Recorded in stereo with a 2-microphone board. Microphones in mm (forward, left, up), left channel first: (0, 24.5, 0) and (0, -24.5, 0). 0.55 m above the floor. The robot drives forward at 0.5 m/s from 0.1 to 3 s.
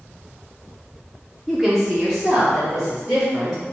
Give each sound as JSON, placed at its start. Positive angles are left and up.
{"t": 1.5, "sound": "a woman speaking", "side_deg": -10, "distance_m": 0.7}